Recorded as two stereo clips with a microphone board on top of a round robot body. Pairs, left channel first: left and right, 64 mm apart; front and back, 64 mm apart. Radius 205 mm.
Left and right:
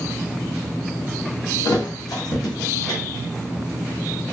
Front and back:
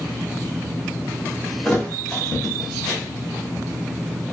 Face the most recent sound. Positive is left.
turn(degrees=80)